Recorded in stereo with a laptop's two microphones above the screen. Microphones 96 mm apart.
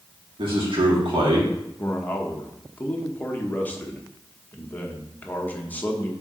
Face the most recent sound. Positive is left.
turn(degrees=15)  # may be behind; listen again after turning